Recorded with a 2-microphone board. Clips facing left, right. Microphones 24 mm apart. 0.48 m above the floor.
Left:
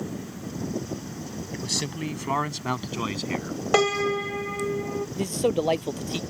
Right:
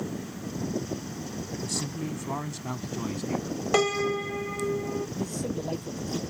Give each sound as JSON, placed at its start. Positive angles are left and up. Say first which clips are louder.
{"t": 1.5, "sound": "a man speaking", "louder": "left 4 dB", "side_deg": 50}
{"t": 3.7, "sound": "a piano", "louder": "left 3 dB", "side_deg": 10}
{"t": 5.2, "sound": "a man speaking", "louder": "left 7 dB", "side_deg": 80}